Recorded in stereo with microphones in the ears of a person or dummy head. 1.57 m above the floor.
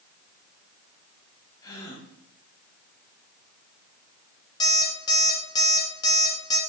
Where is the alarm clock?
30° left (ahead or behind), 1.7 m.